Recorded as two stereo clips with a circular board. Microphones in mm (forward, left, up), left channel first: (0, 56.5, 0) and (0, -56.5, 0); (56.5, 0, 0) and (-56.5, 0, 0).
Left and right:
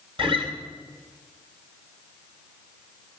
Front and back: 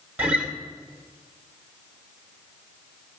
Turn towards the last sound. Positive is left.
turn(degrees=-110)